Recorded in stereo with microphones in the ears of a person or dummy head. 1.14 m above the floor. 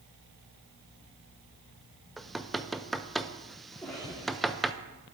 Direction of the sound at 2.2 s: Centre (ahead or behind).